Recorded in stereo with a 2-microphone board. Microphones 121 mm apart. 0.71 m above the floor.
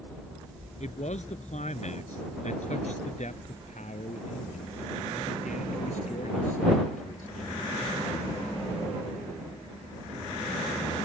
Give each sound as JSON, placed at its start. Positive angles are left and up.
{"t": 0.8, "sound": "a man speaking", "side_deg": 65}